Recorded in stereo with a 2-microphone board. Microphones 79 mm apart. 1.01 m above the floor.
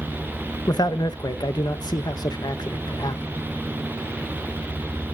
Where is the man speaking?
60° left (ahead or behind), 0.8 m.